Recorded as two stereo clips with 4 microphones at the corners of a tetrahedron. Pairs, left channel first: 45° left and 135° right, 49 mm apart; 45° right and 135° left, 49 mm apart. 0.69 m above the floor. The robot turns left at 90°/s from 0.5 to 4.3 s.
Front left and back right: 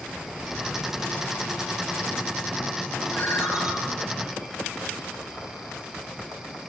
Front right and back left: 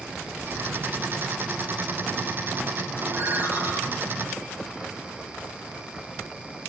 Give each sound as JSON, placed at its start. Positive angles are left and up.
{"t": 3.1, "sound": "a ringtone", "azimuth_deg": 105, "distance_m": 5.5}